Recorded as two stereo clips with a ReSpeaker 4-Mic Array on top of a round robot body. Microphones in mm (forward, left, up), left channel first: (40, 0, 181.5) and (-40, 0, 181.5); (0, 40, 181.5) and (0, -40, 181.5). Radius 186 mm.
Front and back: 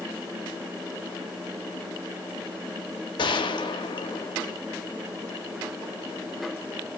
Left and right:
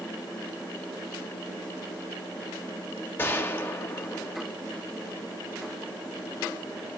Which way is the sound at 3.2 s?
25° left.